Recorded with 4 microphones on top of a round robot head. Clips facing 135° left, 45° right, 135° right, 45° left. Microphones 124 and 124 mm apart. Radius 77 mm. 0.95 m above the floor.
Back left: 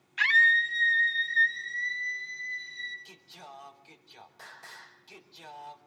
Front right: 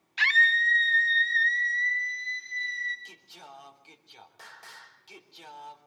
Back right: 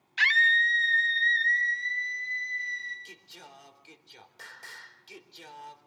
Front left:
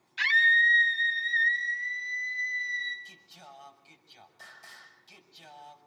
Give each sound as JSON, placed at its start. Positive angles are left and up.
{"t": 0.2, "sound": "a scream", "azimuth_deg": -105, "distance_m": 1.2}
{"t": 3.0, "sound": "singing", "azimuth_deg": -120, "distance_m": 3.5}